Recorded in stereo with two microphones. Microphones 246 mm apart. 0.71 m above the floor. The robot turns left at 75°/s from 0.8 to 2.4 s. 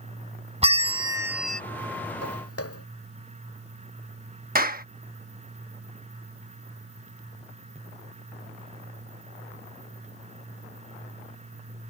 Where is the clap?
35° right (ahead or behind).